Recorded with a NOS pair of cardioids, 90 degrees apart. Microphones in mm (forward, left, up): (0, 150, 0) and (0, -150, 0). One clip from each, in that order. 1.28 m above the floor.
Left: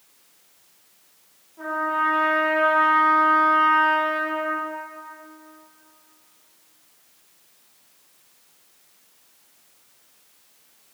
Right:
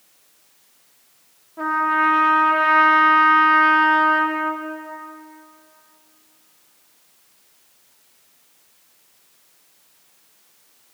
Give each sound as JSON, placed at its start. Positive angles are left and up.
{"t": 1.6, "sound": "a trumpet", "azimuth_deg": -55, "distance_m": 0.8}